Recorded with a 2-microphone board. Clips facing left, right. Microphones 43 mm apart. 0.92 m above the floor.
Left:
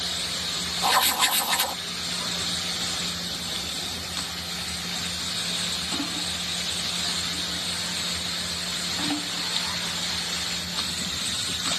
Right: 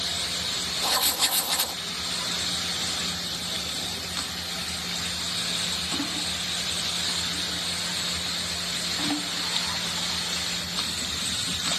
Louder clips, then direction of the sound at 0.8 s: Left 6 dB; 35° left (ahead or behind).